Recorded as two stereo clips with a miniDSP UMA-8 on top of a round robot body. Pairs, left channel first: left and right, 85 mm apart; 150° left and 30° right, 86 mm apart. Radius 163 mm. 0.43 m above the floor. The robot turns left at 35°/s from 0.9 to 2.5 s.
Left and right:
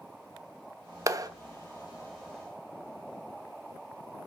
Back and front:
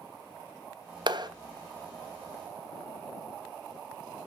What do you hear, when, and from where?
1.1 s a clap: 40° right, 1.0 m; by 1.3 s 50° right, 1.0 m